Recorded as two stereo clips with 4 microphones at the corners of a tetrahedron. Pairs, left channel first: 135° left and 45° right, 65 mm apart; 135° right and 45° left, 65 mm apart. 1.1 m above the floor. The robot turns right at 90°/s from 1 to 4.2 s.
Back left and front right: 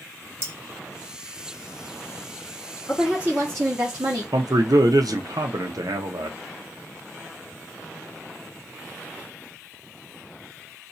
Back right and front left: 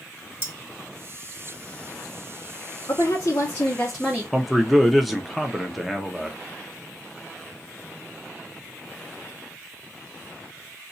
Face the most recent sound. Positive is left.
turn(degrees=-45)